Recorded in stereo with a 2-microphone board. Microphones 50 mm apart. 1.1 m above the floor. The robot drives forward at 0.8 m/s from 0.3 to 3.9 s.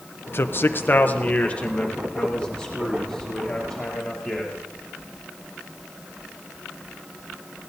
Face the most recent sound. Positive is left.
turn(degrees=10)  # may be behind; listen again after turning